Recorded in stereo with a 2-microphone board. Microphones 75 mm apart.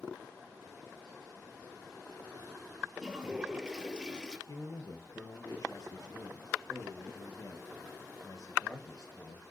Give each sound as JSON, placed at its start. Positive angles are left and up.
{"t": 3.0, "sound": "a toilet flushing", "side_deg": -10, "distance_m": 1.4}
{"t": 4.5, "sound": "a man speaking", "side_deg": 50, "distance_m": 2.5}